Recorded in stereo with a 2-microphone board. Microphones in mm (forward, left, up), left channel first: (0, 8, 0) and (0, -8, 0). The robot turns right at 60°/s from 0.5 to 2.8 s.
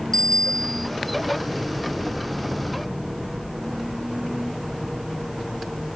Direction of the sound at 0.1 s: 30° left (ahead or behind).